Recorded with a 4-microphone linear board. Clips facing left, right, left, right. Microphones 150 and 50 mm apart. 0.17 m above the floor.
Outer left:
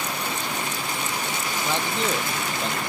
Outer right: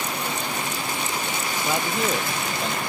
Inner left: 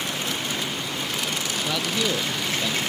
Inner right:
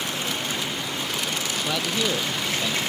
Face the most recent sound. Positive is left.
turn(degrees=0)  # may be behind; listen again after turning